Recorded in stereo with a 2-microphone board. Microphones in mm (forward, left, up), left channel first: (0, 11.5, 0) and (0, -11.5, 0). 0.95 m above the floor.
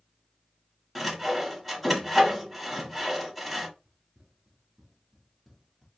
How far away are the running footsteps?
About 1.1 m.